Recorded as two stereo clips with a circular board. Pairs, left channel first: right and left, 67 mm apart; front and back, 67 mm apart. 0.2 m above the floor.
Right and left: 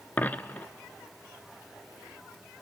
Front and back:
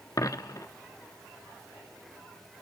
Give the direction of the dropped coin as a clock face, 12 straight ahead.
1 o'clock.